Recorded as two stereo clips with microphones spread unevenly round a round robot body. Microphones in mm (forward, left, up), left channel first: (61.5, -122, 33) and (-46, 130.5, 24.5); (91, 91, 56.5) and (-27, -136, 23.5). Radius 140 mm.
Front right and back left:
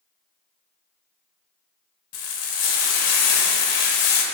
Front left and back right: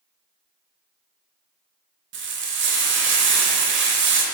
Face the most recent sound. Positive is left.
turn(degrees=-70)